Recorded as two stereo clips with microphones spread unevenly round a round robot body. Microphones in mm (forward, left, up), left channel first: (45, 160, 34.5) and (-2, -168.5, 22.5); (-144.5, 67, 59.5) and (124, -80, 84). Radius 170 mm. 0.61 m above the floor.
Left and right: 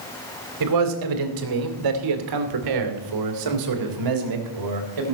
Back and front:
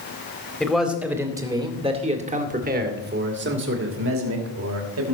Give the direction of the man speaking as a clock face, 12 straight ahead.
4 o'clock.